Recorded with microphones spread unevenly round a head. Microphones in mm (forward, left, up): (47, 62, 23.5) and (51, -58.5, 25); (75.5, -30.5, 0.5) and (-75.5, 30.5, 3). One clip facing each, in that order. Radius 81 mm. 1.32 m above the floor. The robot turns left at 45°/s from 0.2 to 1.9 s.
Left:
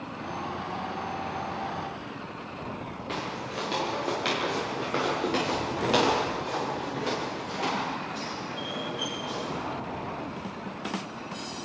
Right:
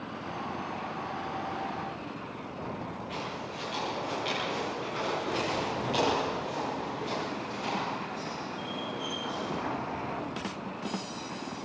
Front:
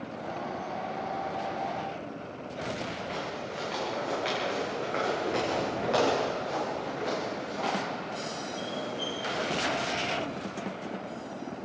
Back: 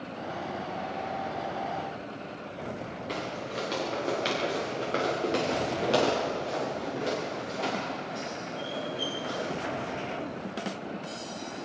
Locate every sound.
3.1 s footsteps: 125° left, 7.5 m; by 9.7 s 95° left, 12.5 m